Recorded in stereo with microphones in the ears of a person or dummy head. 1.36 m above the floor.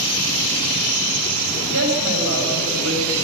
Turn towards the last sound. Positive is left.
turn(degrees=-60)  # may be behind; listen again after turning